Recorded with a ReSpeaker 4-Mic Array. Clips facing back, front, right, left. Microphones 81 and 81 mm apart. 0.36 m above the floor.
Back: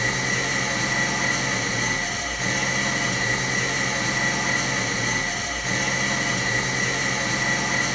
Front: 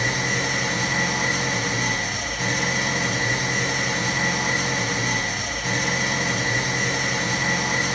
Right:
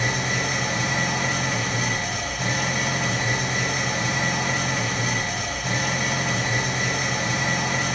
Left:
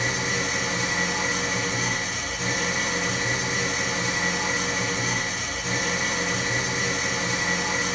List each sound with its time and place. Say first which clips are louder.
0.0 s an engine running: front 1 dB, right 2 dB; 70° right, 2 m